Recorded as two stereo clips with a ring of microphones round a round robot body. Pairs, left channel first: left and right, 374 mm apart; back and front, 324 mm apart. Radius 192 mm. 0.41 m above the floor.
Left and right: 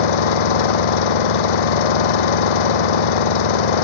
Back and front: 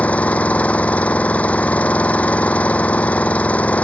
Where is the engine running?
95° left.